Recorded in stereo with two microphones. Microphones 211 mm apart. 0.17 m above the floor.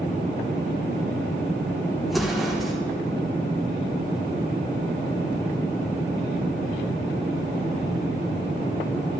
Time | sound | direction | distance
2.1 | an explosion | centre (ahead or behind) | 4.5 m